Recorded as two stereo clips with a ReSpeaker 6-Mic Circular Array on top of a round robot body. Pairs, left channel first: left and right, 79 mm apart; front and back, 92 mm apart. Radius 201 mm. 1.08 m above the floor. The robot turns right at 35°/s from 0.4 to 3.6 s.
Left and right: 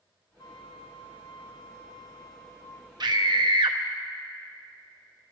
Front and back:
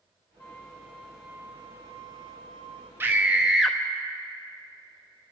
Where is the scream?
115° right, 1.0 m; by 3.8 s 95° right, 1.0 m.